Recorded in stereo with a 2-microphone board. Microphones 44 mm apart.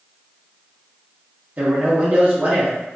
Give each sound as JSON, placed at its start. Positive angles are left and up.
{"t": 1.6, "sound": "a man speaking", "side_deg": -40, "distance_m": 0.9}